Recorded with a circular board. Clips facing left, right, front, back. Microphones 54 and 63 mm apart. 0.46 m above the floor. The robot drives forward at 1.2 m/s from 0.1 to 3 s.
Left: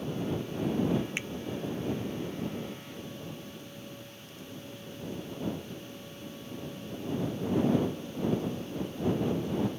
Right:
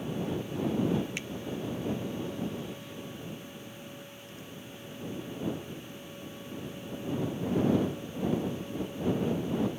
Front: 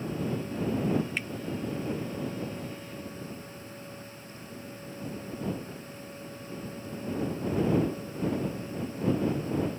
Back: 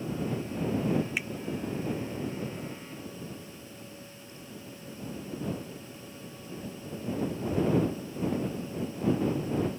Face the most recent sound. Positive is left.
turn(degrees=175)